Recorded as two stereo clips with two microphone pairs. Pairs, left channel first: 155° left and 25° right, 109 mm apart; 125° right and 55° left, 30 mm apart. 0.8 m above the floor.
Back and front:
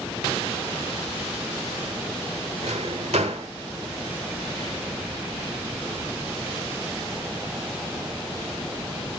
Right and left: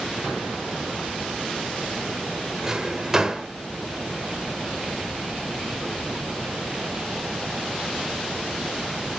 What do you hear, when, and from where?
2.6 s a drawer: 20° right, 1.3 m